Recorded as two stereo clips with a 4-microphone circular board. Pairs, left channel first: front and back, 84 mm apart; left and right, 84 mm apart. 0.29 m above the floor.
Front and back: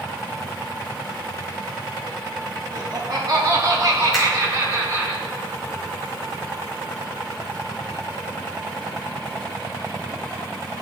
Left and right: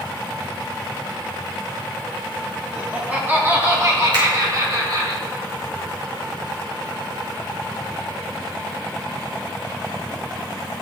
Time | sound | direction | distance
2.7 | laughter | 165° right | 1.9 m
4.1 | a finger snap | 90° right | 3.5 m